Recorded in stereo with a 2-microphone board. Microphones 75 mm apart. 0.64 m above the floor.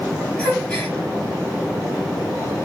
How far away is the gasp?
About 3 m.